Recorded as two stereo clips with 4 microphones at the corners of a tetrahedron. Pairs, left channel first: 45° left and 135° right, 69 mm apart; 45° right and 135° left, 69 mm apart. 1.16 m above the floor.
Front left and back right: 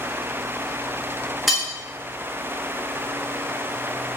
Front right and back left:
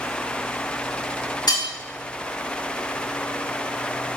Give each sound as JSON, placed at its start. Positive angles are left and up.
{"t": 1.5, "sound": "cutlery clinking", "azimuth_deg": -45, "distance_m": 1.0}